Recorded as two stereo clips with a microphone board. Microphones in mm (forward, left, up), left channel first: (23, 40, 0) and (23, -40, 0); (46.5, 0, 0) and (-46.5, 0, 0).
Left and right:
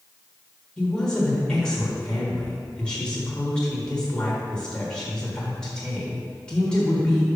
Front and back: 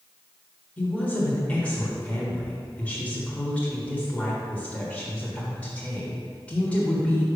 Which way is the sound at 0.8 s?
35° left.